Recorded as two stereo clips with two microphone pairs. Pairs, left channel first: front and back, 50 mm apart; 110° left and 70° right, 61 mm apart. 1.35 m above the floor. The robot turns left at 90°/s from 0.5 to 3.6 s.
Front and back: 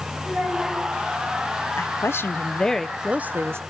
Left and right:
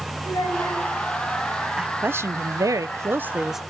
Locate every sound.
0.2 s a child speaking: 110° left, 6.5 m; by 0.8 s 85° left, 6.5 m
1.8 s a woman speaking: 5° left, 0.8 m; by 3.6 s 160° right, 0.8 m